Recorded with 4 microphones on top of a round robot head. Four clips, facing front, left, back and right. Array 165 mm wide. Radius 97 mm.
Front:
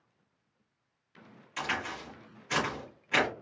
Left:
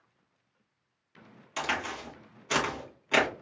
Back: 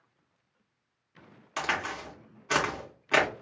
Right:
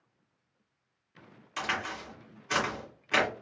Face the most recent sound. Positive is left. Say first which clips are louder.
# left 1 dB, back 3 dB
turn(degrees=165)